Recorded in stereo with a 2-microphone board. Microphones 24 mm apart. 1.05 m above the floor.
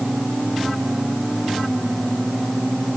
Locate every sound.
Only background noise.